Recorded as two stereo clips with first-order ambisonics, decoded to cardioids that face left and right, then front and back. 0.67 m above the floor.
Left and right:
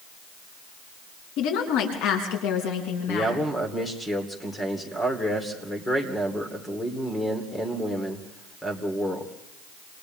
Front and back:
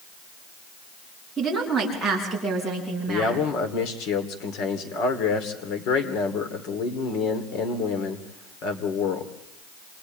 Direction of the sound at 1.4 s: 90° left.